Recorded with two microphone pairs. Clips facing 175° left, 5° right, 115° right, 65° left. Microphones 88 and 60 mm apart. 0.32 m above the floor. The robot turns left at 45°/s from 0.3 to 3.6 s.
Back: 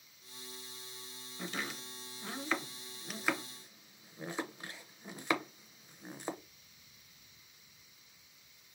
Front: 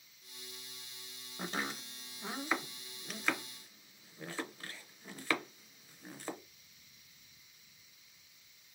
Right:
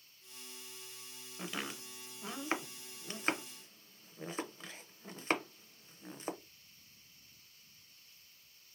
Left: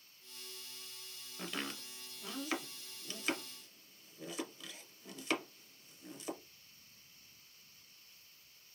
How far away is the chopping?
About 0.5 m.